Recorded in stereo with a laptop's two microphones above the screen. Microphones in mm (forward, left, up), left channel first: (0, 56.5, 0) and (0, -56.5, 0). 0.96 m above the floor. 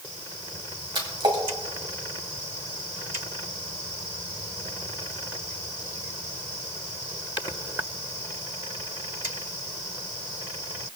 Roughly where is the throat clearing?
No throat clearing in this recording.